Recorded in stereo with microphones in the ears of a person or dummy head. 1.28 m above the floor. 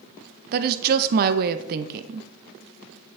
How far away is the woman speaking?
About 0.6 m.